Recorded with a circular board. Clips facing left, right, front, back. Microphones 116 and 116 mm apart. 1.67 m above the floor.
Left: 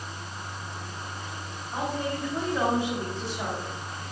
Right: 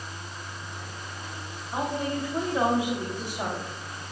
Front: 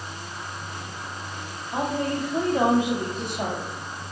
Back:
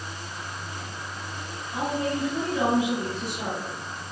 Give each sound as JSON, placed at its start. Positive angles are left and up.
{"t": 1.7, "sound": "a woman speaking", "azimuth_deg": -20, "distance_m": 3.0}